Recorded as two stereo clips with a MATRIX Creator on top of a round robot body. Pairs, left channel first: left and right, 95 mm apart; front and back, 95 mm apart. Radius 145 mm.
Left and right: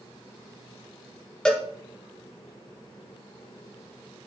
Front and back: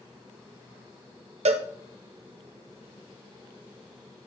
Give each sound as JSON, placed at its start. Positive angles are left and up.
{"t": 1.4, "sound": "a cowbell", "azimuth_deg": 175, "distance_m": 0.9}